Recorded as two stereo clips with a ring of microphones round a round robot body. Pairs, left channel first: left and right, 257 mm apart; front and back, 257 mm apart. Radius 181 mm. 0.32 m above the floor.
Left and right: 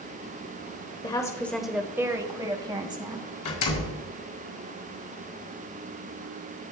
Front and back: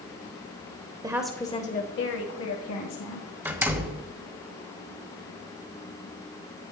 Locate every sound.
1.0 s a woman speaking: 135° left, 0.9 m; by 3.3 s 20° right, 2.5 m
3.5 s a door slam: 100° left, 1.5 m